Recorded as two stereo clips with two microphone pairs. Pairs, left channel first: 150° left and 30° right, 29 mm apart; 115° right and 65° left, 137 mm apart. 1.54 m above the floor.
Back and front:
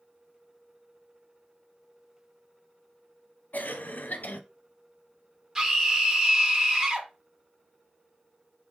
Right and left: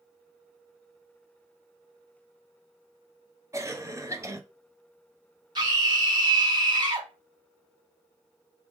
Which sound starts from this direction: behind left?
A cough, at 3.5 s.